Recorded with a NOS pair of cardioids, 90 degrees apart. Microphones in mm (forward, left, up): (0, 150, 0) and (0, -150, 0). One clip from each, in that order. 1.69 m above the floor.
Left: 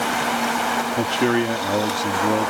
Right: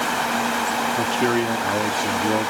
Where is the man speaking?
20° left.